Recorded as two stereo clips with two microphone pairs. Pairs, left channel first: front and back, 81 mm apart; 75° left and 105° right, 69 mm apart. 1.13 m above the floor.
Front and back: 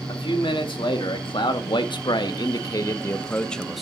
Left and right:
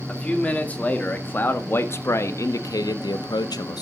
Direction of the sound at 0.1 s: Straight ahead.